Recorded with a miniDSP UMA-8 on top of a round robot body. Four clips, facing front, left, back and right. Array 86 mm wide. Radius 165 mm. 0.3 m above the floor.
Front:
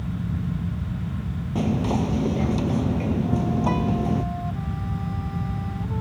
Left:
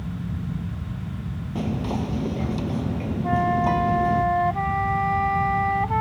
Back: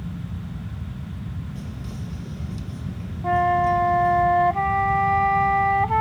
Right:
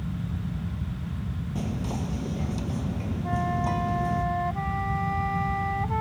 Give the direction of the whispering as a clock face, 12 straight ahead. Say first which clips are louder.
Left 6 dB, front 13 dB; 11 o'clock.